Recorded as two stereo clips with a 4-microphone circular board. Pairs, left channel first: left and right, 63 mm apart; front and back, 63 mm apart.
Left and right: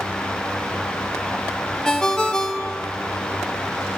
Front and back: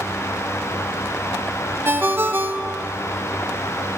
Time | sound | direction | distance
1.9 | a ringtone | 165° left | 0.5 m